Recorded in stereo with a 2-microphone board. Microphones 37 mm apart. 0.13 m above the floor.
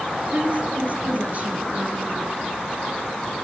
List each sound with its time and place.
0.3 s a woman speaking: 40° right (ahead or behind), 2.0 m